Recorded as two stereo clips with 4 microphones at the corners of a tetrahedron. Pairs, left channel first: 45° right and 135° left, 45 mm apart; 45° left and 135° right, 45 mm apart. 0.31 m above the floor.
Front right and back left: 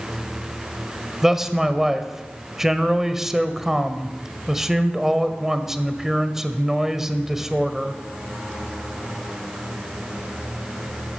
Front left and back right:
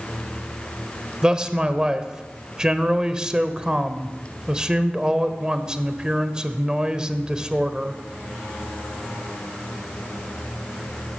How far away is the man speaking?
About 1.3 m.